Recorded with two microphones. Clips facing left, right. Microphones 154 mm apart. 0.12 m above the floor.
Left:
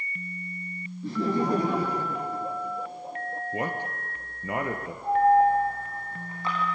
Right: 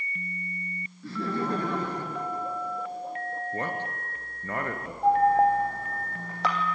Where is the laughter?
20° left (ahead or behind), 1.6 m; by 3.4 s 5° left (ahead or behind), 3 m.